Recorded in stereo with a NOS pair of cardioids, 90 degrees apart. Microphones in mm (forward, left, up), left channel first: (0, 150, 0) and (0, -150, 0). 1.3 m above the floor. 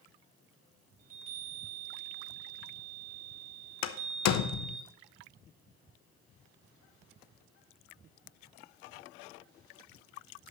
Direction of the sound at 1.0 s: 30° right.